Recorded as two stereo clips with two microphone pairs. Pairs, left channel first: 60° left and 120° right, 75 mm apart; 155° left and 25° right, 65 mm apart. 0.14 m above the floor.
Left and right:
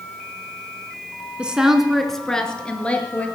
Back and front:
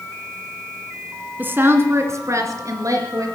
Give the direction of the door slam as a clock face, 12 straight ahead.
I don't hear a door slam.